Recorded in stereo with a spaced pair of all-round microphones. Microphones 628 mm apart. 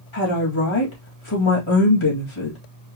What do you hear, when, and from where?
0.1 s a woman speaking: 50° left (ahead or behind), 2 m